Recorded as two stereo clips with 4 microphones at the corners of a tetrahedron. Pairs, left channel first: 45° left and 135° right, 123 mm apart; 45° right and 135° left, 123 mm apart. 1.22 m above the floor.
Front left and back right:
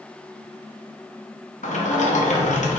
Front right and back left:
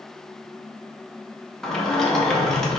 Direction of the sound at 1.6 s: 40° left.